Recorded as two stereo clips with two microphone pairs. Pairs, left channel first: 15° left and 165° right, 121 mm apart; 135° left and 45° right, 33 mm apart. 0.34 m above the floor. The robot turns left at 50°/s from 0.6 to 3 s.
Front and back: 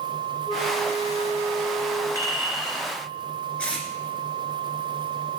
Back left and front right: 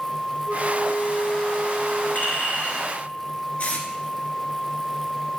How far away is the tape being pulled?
About 2 m.